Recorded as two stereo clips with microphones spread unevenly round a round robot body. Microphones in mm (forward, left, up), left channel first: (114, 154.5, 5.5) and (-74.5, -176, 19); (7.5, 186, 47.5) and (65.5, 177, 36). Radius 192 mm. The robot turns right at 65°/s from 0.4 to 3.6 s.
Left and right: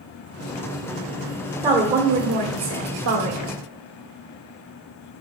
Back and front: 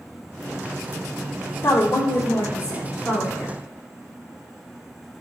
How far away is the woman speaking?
About 1.6 m.